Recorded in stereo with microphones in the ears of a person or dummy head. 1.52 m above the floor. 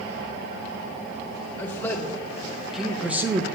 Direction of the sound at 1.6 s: 5° left (ahead or behind).